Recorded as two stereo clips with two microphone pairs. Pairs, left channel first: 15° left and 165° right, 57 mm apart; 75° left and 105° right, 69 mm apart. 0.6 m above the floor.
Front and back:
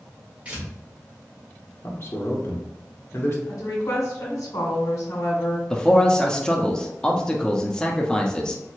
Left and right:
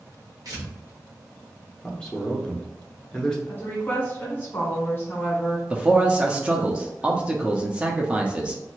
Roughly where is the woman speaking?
Ahead.